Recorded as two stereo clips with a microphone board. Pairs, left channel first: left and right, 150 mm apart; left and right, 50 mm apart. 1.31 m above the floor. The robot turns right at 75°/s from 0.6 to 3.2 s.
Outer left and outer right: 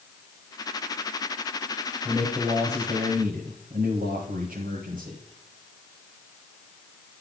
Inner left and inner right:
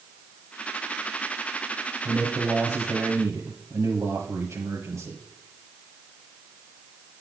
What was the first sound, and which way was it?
A man speaking, straight behind.